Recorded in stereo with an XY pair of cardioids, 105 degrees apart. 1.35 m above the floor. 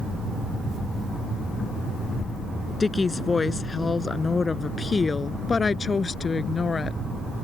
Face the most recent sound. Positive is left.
turn(degrees=35)